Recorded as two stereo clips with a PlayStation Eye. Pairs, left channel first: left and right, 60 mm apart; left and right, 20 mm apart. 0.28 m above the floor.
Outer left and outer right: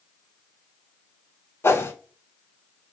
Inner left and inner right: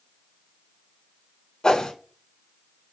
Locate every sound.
1.6 s a whoosh: 45° left (ahead or behind), 0.6 m